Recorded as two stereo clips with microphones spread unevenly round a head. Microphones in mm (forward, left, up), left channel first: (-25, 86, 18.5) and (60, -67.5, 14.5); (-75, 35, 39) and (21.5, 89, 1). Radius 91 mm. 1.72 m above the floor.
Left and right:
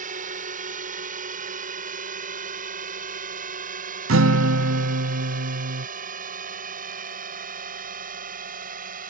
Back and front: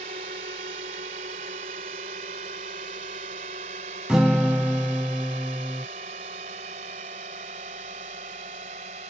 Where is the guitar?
55° right.